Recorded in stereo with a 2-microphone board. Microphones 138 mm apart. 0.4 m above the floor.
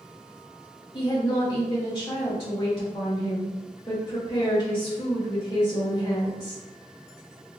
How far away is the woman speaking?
About 1.7 m.